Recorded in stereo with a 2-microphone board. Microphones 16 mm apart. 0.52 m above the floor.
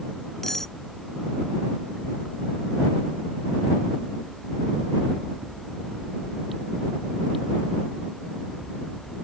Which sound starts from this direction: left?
Cutlery clinking, at 0.4 s.